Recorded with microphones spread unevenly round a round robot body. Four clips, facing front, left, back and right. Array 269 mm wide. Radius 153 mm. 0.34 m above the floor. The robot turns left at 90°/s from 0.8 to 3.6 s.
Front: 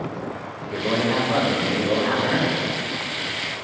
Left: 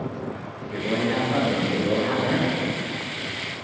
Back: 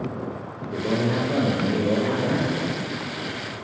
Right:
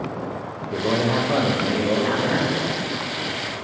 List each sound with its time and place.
0.6 s a man speaking: 65° right, 1.5 m; by 2.6 s 135° left, 1.5 m